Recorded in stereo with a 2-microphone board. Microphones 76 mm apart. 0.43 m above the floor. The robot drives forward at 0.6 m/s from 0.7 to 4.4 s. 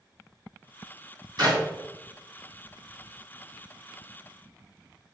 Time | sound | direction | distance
1.4 | a clap | 65° right (ahead or behind) | 3.5 m